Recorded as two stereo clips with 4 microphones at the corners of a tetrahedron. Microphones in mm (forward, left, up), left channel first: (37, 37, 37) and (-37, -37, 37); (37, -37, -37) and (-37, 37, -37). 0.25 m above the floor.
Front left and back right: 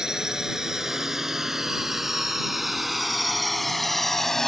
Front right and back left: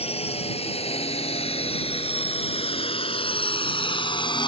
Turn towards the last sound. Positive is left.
turn(degrees=-40)